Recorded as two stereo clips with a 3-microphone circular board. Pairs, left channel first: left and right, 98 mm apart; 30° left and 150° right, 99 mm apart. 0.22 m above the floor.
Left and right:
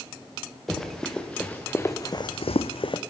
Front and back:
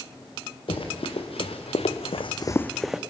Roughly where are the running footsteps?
Ahead.